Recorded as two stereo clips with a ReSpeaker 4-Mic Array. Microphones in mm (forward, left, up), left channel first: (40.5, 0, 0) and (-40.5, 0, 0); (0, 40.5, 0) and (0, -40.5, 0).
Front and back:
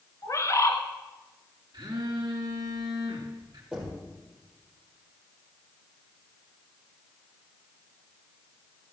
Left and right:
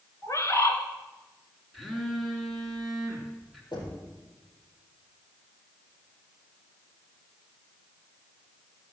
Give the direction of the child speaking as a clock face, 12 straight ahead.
No child speaking in this recording.